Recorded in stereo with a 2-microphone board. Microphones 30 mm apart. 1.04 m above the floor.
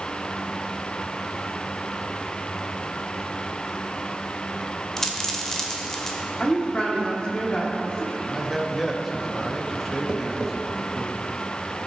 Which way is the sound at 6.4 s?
35° left (ahead or behind).